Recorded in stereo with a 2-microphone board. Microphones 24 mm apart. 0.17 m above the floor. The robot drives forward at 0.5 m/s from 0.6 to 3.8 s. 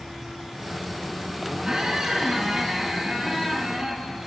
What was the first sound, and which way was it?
A squeak, 30° right (ahead or behind).